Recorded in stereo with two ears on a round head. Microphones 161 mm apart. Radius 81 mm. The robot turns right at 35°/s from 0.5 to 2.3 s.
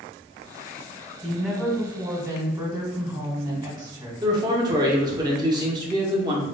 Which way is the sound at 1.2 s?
175° left.